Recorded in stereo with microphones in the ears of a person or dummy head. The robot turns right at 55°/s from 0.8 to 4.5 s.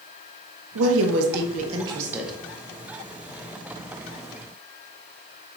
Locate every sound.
0.8 s a woman speaking: 80° right, 0.7 m; by 2.3 s straight ahead, 0.7 m